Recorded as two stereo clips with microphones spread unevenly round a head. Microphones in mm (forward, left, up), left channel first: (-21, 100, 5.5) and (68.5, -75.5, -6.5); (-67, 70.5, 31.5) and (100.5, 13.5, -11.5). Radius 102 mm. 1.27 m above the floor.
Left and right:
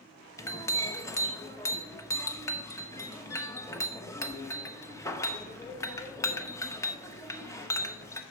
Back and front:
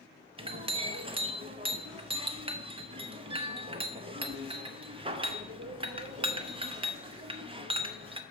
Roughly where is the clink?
Ahead left.